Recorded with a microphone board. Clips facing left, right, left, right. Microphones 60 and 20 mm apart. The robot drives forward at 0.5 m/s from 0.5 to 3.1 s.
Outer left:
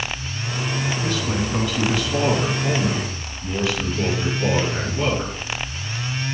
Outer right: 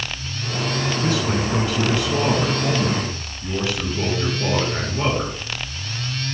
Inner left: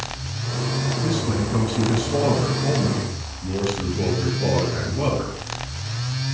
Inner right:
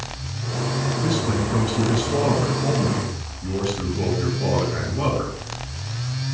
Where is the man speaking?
25° right (ahead or behind), 3.5 m; by 5.3 s 20° right (ahead or behind), 4.5 m.